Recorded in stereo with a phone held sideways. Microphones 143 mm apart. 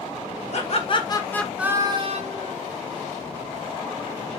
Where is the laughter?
50° left (ahead or behind), 1.3 m; by 2.5 s 60° right (ahead or behind), 1.2 m.